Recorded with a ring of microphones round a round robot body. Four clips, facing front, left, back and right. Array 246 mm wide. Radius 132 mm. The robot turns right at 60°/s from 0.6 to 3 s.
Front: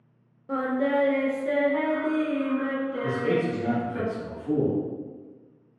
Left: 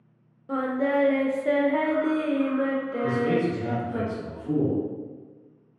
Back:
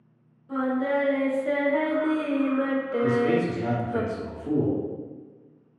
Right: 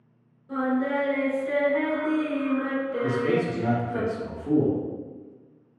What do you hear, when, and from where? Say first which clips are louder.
0.5 s singing: left 1 dB, even; 40° left, 0.5 m; by 4.0 s straight behind, 0.5 m
3.0 s a man speaking: left 1 dB, back 3 dB; 135° right, 1.1 m